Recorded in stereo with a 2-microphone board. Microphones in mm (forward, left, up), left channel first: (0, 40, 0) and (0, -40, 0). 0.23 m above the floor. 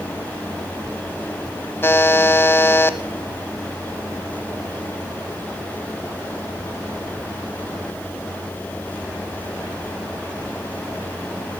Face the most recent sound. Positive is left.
turn(degrees=30)  # may be behind; listen again after turning